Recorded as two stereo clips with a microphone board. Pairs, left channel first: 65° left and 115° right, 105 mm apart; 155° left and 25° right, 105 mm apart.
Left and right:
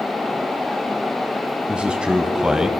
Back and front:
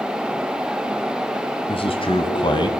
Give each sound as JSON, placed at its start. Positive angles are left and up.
{"t": 1.7, "sound": "a man speaking", "azimuth_deg": 165, "distance_m": 2.5}